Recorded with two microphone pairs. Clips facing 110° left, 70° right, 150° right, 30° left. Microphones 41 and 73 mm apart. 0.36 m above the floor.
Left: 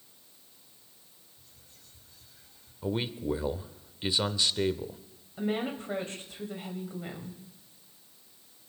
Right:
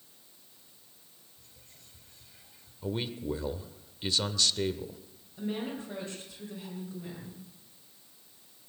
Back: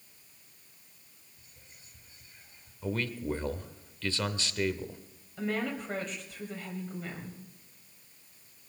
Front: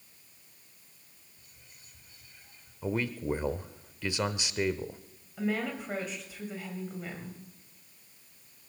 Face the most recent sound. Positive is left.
turn(degrees=115)